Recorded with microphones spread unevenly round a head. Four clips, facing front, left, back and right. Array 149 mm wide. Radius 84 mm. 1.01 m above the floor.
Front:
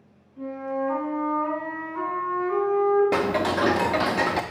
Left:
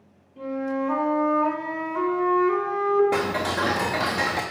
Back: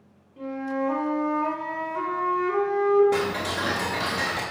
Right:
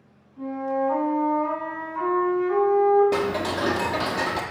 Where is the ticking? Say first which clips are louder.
Even, front 3 dB; straight ahead, 0.6 m.